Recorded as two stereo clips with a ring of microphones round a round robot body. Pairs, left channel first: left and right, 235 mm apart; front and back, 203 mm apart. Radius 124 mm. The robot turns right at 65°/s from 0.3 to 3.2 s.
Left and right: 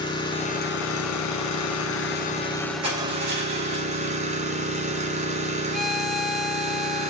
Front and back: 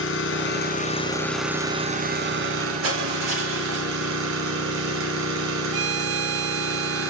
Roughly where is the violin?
Behind.